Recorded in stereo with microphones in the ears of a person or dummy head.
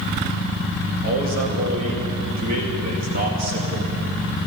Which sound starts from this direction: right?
A man speaking, at 1.0 s.